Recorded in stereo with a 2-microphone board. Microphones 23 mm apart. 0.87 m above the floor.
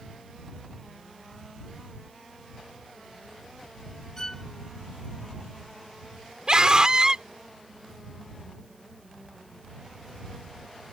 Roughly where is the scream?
Right.